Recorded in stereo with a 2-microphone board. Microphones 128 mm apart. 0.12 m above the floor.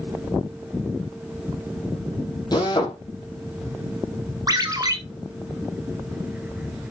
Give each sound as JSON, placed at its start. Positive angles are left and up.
{"t": 2.5, "sound": "a drill", "side_deg": 35, "distance_m": 3.5}
{"t": 4.5, "sound": "a ringtone", "side_deg": -30, "distance_m": 1.5}